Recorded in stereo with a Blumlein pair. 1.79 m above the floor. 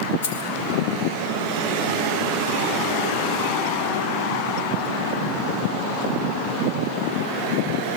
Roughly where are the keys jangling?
Ahead left.